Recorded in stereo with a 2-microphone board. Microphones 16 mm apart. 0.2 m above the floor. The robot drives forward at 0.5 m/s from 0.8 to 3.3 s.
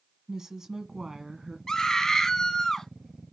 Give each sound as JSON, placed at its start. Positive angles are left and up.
{"t": 0.3, "sound": "a woman speaking", "side_deg": -30, "distance_m": 1.7}
{"t": 1.7, "sound": "a scream", "side_deg": 35, "distance_m": 1.1}